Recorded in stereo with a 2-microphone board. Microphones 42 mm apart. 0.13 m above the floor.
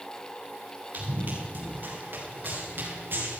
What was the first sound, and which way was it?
Running footsteps, 45° right (ahead or behind).